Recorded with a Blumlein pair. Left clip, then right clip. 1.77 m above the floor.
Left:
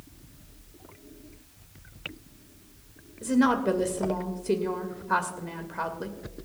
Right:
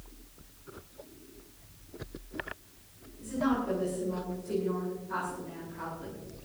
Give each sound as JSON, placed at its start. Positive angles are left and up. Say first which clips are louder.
{"t": 3.2, "sound": "a woman speaking", "louder": "left 7 dB", "azimuth_deg": 35, "distance_m": 2.5}